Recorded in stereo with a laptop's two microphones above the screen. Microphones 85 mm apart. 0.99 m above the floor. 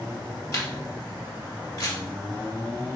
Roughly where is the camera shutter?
Left.